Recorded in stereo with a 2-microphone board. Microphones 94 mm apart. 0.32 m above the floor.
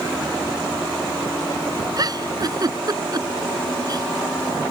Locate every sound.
2.0 s a giggle: 45° right (ahead or behind)